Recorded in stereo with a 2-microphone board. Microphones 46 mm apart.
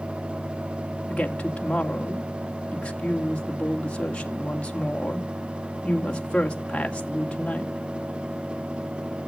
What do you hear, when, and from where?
1.1 s a woman speaking: 25° left (ahead or behind), 2 m